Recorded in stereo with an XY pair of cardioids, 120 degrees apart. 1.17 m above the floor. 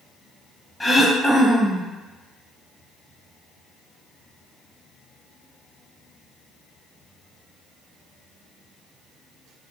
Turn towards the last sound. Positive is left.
turn(degrees=10)